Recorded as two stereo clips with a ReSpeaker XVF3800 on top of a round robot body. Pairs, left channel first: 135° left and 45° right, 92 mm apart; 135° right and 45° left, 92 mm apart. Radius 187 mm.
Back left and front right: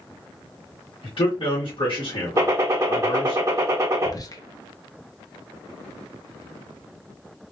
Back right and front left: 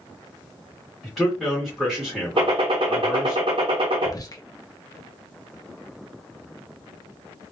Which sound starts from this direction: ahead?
A gunshot, at 2.4 s.